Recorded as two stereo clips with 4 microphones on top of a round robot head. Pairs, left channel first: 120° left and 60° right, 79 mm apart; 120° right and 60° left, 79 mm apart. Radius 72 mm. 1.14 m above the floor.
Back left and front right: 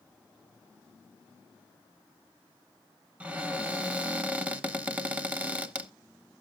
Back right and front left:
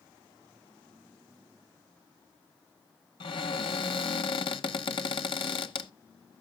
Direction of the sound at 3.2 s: 135° right.